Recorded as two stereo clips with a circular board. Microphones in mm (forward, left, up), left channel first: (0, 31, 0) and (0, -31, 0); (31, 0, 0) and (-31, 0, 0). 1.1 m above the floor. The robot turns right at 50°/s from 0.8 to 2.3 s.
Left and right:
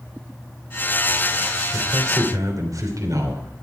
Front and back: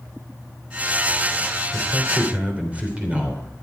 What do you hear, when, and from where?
1.7 s a man speaking: 140° right, 3 m; by 3.5 s 110° right, 3 m